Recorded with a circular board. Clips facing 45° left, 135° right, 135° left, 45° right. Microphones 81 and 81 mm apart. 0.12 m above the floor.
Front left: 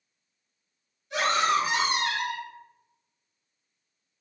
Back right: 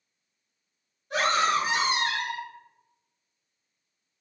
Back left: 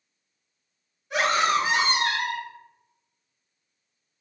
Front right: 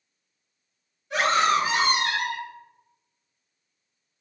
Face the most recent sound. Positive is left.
turn(degrees=170)